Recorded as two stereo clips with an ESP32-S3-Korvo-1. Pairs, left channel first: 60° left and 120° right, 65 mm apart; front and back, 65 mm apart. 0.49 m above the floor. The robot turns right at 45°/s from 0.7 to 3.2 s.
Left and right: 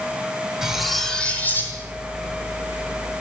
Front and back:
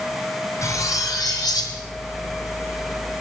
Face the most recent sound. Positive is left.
turn(degrees=75)